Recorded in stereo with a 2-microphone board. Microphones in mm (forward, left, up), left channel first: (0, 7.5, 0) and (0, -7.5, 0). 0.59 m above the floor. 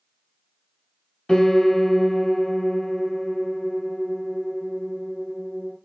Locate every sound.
1.3 s a piano: 40° left (ahead or behind), 1.7 m